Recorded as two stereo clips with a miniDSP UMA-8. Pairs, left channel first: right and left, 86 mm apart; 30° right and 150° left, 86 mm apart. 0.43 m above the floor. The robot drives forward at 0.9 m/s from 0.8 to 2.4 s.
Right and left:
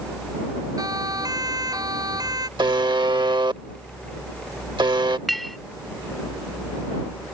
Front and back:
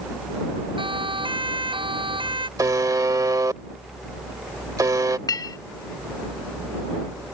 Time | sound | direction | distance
0.8 | a siren | 135° left | ?
2.6 | a buzzer | 105° left | ?
5.3 | a clink | straight ahead | ?